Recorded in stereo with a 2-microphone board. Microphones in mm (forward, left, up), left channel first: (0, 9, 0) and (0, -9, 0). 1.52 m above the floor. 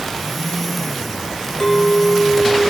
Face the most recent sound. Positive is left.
turn(degrees=20)  # may be behind; listen again after turning